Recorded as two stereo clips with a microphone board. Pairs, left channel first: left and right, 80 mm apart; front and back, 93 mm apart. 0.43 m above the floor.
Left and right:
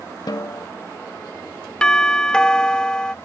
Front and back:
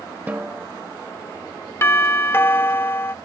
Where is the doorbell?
25° left.